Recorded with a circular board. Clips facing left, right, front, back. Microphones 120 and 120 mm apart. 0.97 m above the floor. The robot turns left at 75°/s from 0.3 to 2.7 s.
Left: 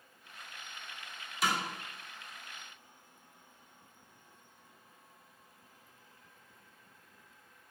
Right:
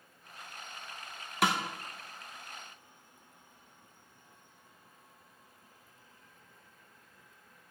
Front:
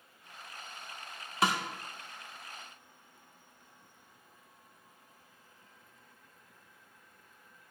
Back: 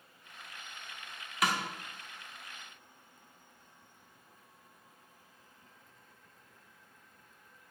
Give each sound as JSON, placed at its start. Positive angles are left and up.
{"t": 1.4, "sound": "a snare drum", "azimuth_deg": -60, "distance_m": 1.2}